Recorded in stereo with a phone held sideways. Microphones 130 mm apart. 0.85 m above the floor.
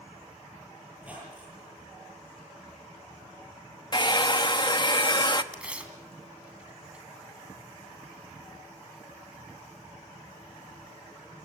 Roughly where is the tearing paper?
Centre.